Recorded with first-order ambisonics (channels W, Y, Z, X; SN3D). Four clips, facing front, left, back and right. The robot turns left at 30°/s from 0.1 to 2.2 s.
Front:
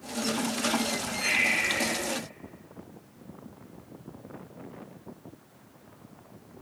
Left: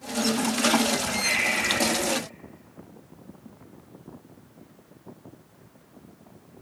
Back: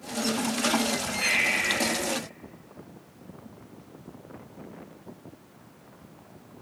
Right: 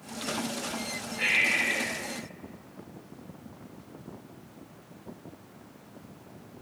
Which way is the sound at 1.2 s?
130° right.